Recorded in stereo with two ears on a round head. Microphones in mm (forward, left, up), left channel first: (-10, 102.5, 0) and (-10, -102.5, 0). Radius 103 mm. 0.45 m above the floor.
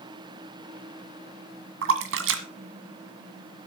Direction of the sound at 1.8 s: 60° right (ahead or behind).